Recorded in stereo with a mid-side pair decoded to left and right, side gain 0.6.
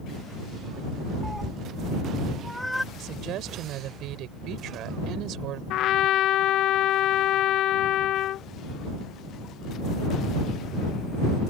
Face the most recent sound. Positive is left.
turn(degrees=60)